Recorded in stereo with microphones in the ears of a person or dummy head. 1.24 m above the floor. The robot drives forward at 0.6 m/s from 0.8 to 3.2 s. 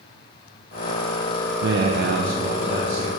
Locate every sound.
1.6 s a man speaking: 65° right (ahead or behind), 0.7 m; by 3.1 s 30° right (ahead or behind), 1.4 m